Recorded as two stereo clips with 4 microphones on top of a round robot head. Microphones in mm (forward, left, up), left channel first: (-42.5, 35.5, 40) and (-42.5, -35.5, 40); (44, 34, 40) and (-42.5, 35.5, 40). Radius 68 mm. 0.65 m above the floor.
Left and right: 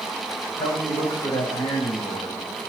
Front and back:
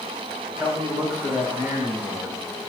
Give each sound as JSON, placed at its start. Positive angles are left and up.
{"t": 0.6, "sound": "a man speaking", "azimuth_deg": 105, "distance_m": 4.5}